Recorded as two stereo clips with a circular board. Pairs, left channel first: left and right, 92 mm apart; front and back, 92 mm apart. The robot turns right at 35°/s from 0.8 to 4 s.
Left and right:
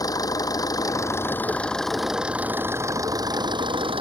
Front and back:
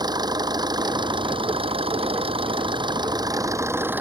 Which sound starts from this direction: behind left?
An engine running, at 0.0 s.